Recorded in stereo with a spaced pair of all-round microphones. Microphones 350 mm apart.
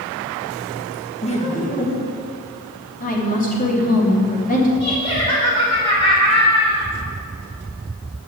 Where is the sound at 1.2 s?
15° left (ahead or behind), 2 m; by 2.3 s 30° left (ahead or behind), 1.9 m.